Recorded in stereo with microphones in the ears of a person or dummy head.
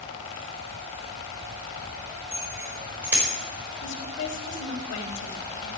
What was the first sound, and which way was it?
A bicycle bell, 15° right (ahead or behind).